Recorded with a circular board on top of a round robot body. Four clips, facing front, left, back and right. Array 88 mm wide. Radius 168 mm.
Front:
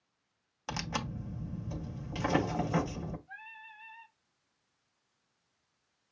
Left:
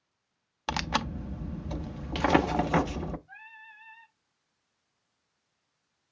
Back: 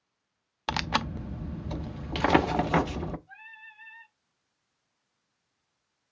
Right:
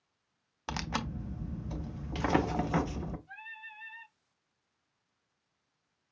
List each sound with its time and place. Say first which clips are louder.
0.7 s tearing paper: left 6 dB, back 8 dB; 155° left, 0.6 m
3.3 s singing: right 2 dB, even; 110° right, 3 m